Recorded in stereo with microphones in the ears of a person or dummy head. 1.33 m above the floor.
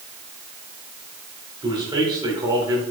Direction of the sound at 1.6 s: 25° right (ahead or behind).